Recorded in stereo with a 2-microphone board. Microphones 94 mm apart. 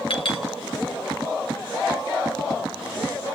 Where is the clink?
70° left (ahead or behind), 3 m.